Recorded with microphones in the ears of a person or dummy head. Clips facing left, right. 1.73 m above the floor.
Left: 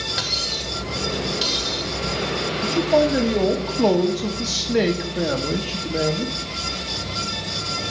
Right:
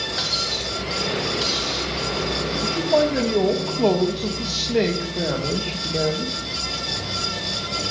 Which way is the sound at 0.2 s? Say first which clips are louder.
Right 1 dB; 15° left (ahead or behind).